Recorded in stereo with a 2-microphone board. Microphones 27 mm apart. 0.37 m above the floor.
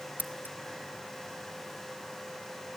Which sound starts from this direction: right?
Scissors, at 0.2 s.